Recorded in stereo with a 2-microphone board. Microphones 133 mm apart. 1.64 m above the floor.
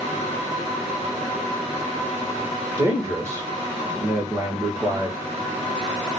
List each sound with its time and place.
2.8 s a man speaking: 20° right (ahead or behind), 2.5 m